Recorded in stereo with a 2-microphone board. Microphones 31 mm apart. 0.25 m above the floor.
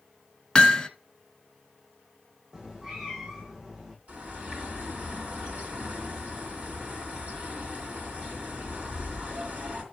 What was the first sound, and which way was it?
Hammering, 25° left (ahead or behind).